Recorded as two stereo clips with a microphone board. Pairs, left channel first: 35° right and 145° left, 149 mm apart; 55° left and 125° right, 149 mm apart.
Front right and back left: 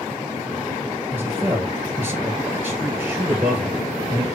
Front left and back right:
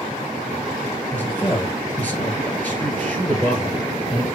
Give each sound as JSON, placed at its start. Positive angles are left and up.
{"t": 1.1, "sound": "a man speaking", "azimuth_deg": 110, "distance_m": 1.4}